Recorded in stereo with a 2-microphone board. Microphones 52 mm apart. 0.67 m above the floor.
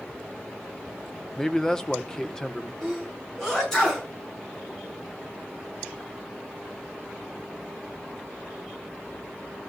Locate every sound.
1.4 s a man speaking: 10° left (ahead or behind), 0.7 m
2.8 s a sneeze: 10° left (ahead or behind), 7 m